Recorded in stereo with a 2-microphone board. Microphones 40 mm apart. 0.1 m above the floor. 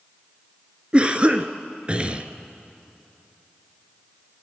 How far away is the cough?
About 1.3 m.